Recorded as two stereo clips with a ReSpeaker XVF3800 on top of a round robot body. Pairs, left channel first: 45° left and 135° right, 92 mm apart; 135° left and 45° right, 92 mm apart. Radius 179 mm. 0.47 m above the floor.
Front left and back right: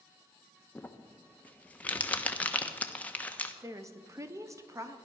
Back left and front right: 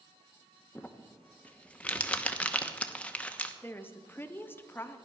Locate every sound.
0.8 s crumpling: 85° left, 1.3 m
3.6 s a woman speaking: 170° right, 1.2 m